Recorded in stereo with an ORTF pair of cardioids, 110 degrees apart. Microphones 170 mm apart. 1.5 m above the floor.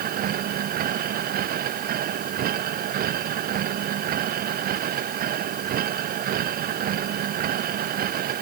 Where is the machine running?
60° right.